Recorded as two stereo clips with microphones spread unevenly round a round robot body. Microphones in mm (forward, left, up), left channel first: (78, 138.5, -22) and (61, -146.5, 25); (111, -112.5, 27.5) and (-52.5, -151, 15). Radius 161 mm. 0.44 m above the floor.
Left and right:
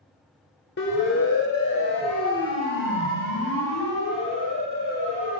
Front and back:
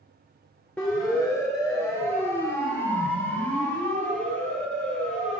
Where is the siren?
100° left, 2 m; by 5.4 s 140° left, 4 m.